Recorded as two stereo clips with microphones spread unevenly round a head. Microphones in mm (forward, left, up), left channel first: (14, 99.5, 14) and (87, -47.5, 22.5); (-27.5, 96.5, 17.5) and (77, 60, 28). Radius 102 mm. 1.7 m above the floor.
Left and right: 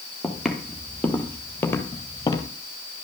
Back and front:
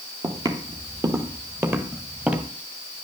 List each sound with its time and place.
0.2 s footsteps: 25° left, 3 m; by 2.5 s 55° left, 2.5 m